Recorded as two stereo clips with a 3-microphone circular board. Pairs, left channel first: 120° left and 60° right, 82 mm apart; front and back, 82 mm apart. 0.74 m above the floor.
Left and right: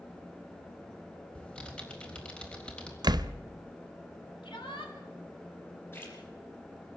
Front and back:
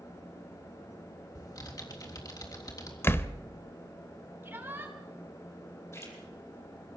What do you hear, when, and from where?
1.4 s typing on a keyboard: 40° left, 3.5 m
3.0 s a door slam: 55° right, 0.8 m
4.4 s a shout: 115° left, 5 m
5.9 s a splash: 55° left, 5.5 m